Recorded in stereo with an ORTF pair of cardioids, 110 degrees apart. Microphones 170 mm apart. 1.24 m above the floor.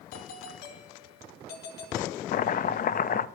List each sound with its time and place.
0.1 s a doorbell: 70° left, 4 m
2.3 s chopping: 55° left, 0.9 m